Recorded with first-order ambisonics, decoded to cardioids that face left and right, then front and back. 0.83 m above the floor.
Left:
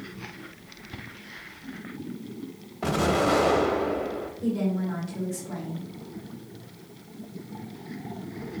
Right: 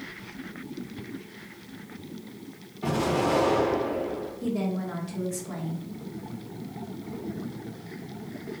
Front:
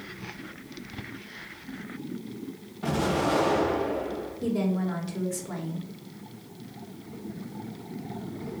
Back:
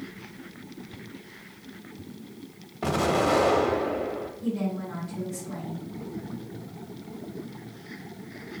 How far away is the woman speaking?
About 1.0 m.